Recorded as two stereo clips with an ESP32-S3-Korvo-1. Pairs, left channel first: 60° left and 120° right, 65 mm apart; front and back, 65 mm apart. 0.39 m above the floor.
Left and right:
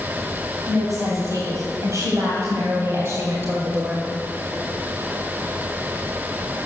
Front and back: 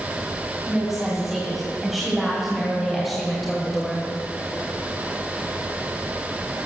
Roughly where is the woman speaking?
Right.